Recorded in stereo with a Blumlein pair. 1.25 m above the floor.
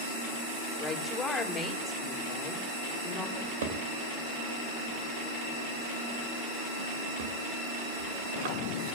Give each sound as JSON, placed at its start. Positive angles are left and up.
{"t": 0.8, "sound": "a woman speaking", "azimuth_deg": 15, "distance_m": 3.0}
{"t": 3.4, "sound": "a drawer", "azimuth_deg": -55, "distance_m": 3.0}